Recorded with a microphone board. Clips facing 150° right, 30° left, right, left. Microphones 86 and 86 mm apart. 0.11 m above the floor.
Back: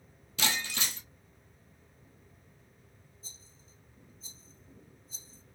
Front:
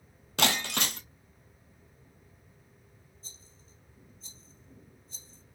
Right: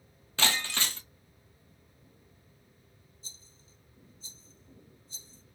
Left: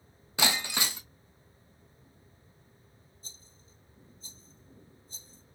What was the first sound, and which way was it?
Breaking glass, 15° left.